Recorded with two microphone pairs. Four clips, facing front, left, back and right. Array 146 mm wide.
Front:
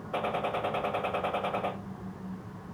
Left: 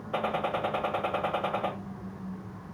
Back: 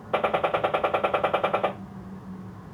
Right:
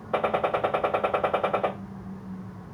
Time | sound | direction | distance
0.1 | a gunshot | 150° right | 1.3 m